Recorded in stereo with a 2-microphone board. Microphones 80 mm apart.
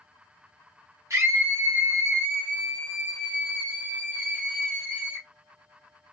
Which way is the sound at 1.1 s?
35° right (ahead or behind).